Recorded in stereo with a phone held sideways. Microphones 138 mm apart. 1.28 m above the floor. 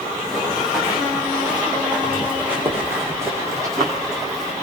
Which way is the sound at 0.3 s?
Centre (ahead or behind).